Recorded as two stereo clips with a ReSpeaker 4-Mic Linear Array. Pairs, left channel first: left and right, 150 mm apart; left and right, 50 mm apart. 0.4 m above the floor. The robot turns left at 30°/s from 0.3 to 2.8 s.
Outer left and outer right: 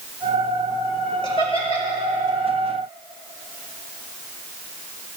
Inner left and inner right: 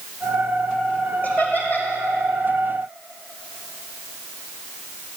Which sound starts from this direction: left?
Laughter, at 1.2 s.